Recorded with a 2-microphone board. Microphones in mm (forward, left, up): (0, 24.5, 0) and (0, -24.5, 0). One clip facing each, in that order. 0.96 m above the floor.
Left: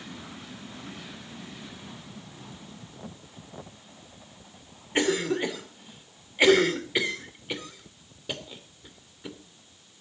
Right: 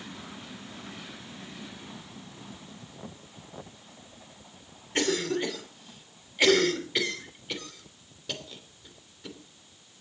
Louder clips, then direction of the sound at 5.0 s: Left 2 dB; 15° left (ahead or behind).